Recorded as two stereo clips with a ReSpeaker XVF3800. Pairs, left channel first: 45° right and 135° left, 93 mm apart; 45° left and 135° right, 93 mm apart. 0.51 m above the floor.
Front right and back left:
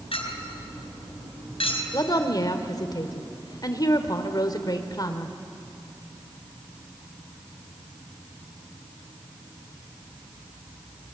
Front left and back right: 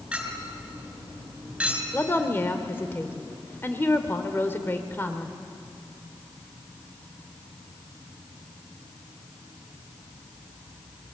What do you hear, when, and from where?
0.1 s a clink: 55° right, 3.5 m
1.9 s a woman speaking: 15° right, 2 m